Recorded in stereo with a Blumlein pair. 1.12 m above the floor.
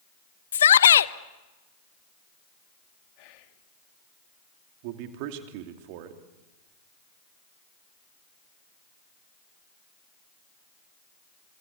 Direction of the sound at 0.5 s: 65° left.